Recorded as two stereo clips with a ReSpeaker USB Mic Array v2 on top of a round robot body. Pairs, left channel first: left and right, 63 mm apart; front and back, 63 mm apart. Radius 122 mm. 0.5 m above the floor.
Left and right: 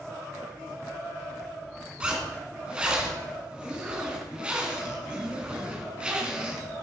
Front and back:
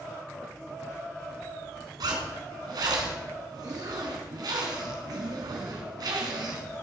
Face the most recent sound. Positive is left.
turn(degrees=-165)